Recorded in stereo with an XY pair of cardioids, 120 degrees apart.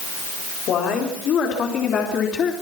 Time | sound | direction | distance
0.7 | a woman speaking | 60° left | 4 m